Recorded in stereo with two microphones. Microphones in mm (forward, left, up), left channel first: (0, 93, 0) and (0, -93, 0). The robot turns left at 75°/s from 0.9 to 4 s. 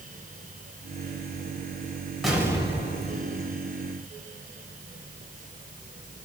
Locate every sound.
2.2 s an explosion: straight ahead, 2 m; by 3.5 s 90° right, 2 m